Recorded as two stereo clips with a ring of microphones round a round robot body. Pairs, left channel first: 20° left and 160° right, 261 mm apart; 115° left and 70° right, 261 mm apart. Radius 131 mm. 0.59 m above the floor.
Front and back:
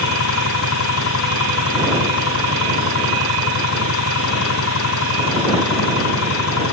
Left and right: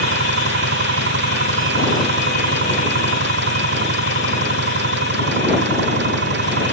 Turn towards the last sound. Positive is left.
turn(degrees=-15)